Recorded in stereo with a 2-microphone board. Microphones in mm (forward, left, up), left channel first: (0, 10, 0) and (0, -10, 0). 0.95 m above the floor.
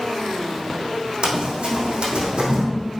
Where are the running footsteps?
65° right (ahead or behind), 2 m; by 2.6 s 60° right (ahead or behind), 2 m.